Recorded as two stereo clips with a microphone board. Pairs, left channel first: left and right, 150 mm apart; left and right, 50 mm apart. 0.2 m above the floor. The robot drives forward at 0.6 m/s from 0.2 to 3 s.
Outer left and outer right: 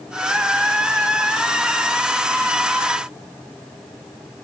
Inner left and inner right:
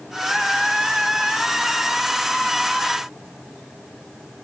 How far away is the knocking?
I don't hear knocking.